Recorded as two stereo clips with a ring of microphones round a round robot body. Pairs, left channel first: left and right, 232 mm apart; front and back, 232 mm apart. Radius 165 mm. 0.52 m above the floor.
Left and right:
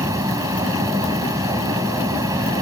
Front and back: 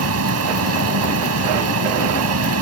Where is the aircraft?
170° right.